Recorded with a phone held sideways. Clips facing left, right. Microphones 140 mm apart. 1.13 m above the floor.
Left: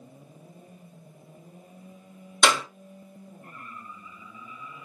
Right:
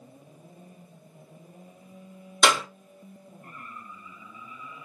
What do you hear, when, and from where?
2.4 s a clap: 5° right (ahead or behind), 2.0 m